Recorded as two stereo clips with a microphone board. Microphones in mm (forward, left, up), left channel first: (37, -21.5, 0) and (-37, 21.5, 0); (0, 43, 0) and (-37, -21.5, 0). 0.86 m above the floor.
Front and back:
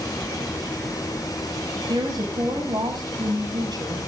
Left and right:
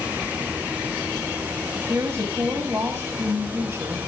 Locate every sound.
1.9 s a woman speaking: 175° right, 6 m